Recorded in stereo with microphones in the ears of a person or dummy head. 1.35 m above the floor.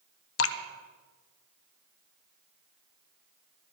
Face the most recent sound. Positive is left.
turn(degrees=70)  # may be behind; listen again after turning